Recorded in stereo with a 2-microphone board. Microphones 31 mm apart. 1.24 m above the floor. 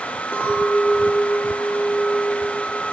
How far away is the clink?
About 1.9 m.